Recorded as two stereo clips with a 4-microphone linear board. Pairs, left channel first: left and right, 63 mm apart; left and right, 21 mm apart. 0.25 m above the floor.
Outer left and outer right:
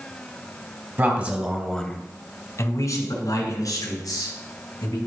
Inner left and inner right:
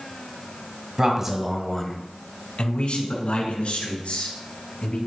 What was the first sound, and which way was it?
A man speaking, 30° right (ahead or behind).